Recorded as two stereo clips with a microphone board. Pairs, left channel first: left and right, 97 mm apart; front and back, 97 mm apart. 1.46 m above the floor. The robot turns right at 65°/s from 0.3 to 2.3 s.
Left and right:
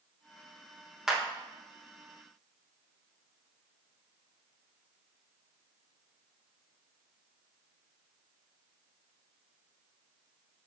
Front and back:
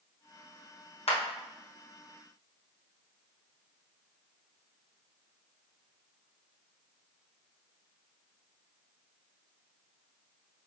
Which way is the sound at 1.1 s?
5° right.